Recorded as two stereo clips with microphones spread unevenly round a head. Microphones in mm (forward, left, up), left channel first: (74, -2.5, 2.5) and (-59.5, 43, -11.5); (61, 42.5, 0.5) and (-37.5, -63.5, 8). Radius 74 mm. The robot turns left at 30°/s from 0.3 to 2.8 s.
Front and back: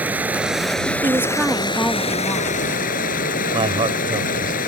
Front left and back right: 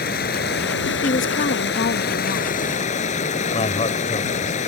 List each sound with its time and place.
0.0 s running water: 80° left; by 4.7 s 5° left
1.0 s a woman speaking: 90° left; by 2.6 s 40° left
3.5 s a man speaking: 105° left